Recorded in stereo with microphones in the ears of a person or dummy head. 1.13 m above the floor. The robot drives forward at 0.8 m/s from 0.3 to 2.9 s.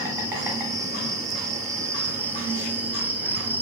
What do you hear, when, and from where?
0.0 s an insect: 20° right (ahead or behind), 1.1 m; by 3.6 s 10° right (ahead or behind), 1.9 m